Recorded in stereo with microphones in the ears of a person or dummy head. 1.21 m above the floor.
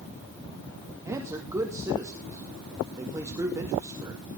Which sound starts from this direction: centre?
A man speaking, at 1.1 s.